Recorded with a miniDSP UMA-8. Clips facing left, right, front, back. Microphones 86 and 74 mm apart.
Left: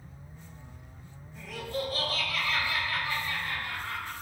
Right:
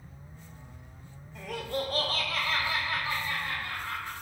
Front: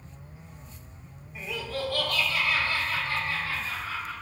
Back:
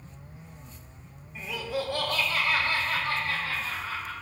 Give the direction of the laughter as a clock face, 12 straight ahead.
3 o'clock.